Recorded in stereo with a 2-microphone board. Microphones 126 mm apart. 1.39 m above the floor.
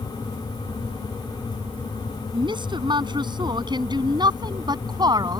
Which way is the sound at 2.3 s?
35° right (ahead or behind).